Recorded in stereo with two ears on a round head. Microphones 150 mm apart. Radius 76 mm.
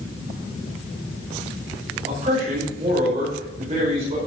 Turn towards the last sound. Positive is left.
turn(degrees=-30)  # may be behind; listen again after turning